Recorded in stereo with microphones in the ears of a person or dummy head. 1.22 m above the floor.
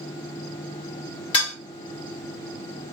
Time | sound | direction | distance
1.3 | dishes clattering | 30° left (ahead or behind) | 1.4 m